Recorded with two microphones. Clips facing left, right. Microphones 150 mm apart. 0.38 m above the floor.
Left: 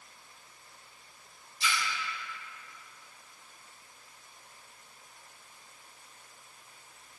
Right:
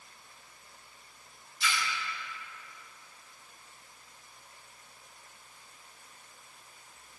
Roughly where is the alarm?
No alarm in this recording.